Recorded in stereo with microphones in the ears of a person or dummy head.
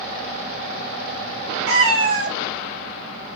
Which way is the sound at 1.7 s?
60° right (ahead or behind).